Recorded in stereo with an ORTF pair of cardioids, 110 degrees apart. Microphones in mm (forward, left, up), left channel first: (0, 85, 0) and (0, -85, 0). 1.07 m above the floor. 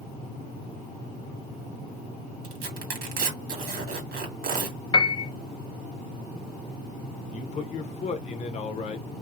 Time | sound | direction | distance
2.4 | tearing paper | 65° right | 1.9 m
4.9 | a piano | 25° left | 0.6 m
7.3 | a man speaking | 45° left | 0.9 m